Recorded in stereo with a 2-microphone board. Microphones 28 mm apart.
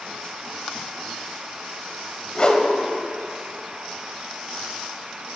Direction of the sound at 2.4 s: 35° left (ahead or behind).